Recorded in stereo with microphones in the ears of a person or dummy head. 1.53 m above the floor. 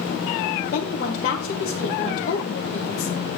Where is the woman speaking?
60° left (ahead or behind), 1.6 m.